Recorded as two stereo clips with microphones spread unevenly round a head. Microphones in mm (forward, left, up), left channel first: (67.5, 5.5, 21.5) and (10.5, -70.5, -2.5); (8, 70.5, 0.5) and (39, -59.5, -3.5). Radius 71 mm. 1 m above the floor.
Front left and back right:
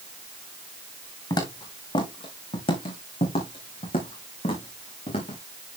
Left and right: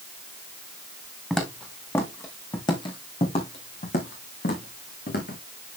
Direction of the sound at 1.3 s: 15° left.